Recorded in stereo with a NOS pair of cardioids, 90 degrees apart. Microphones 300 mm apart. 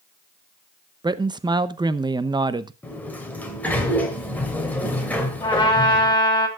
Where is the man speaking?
15° right, 0.8 m.